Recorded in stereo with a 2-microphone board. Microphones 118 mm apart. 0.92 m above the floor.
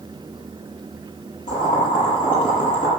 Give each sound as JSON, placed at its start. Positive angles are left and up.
{"t": 1.5, "sound": "boiling", "side_deg": 80, "distance_m": 7.5}